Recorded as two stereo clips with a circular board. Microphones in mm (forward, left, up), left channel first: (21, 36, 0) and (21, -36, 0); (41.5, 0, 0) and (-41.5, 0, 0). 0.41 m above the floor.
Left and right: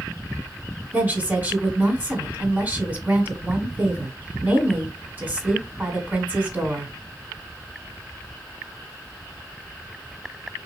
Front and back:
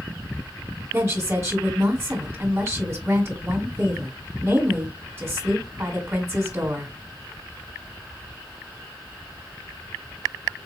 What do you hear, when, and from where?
0.9 s a woman speaking: 140° right, 1.3 m